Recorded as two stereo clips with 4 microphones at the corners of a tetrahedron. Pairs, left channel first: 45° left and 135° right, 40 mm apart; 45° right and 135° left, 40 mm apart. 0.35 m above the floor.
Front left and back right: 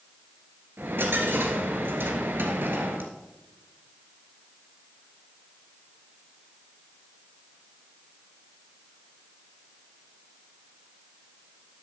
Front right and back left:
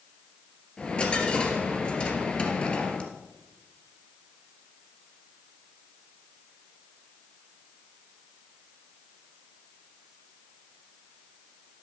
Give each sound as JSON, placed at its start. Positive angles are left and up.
{"t": 0.8, "sound": "a dropped coin", "azimuth_deg": -110, "distance_m": 1.6}